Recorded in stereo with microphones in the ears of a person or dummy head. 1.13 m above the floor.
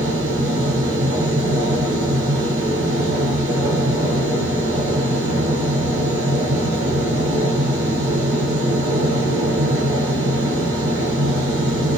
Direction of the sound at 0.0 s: 65° right (ahead or behind).